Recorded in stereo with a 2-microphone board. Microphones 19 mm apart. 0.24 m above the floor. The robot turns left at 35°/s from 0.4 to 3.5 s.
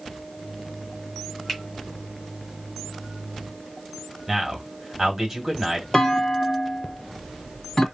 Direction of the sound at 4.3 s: 25° right (ahead or behind).